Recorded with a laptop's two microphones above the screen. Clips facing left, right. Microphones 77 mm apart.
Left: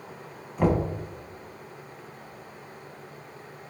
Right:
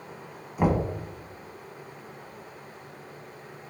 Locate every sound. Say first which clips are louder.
0.6 s knocking: left 1 dB; 10° right (ahead or behind), 0.8 m